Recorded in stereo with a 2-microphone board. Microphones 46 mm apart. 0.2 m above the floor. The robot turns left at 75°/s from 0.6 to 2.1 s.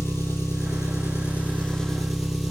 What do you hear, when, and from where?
0.0 s an engine running: 105° left, 3.5 m; by 2.5 s 5° right, 3.5 m